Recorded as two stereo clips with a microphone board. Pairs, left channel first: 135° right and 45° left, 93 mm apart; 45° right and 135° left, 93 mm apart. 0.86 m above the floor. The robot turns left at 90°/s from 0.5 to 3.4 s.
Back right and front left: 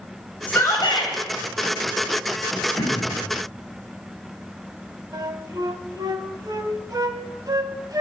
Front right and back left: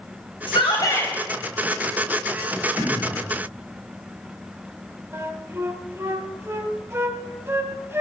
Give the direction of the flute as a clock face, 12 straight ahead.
9 o'clock.